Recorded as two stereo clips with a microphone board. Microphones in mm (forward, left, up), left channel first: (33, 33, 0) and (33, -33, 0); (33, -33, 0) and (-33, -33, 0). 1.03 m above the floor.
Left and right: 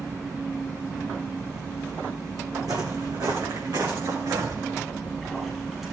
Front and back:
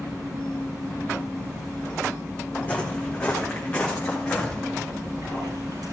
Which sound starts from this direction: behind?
A splash, at 4.9 s.